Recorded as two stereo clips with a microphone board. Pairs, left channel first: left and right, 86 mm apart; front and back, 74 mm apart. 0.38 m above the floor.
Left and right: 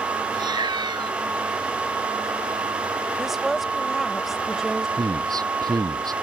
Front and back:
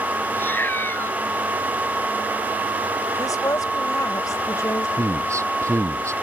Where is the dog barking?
I don't hear a dog barking.